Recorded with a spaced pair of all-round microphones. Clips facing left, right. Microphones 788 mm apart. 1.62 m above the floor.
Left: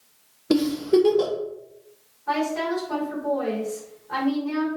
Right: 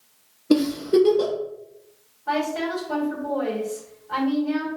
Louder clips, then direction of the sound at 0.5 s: Right 1 dB; 30° left (ahead or behind).